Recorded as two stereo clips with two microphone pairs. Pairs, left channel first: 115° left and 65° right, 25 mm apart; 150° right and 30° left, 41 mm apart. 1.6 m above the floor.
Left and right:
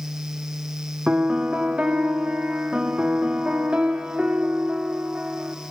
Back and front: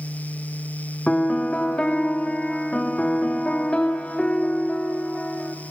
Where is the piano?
90° right, 2.5 m.